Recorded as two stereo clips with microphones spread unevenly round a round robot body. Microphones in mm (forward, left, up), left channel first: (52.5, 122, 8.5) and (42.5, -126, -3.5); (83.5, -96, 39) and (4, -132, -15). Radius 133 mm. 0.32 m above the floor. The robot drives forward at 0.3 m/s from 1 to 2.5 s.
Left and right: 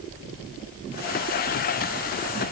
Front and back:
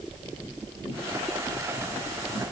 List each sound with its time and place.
Only background noise.